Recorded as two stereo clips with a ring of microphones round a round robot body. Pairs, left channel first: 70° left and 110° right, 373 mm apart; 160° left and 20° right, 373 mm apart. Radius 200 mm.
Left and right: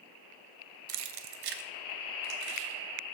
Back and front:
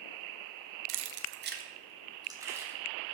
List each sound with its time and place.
0.9 s keys jangling: 60° right, 0.6 m; by 3.1 s 110° right, 1.7 m